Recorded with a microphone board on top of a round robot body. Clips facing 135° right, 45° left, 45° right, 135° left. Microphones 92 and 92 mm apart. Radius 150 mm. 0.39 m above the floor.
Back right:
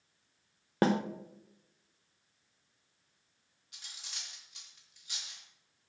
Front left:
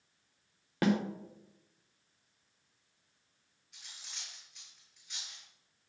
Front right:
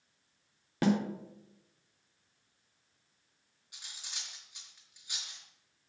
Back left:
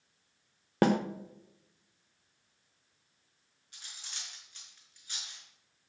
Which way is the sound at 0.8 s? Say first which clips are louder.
Back right 1 dB, back left 3 dB; 170° left.